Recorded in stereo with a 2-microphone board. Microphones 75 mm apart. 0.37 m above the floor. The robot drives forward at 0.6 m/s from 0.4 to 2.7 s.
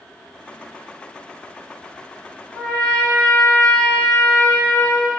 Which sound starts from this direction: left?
A trumpet, at 2.5 s.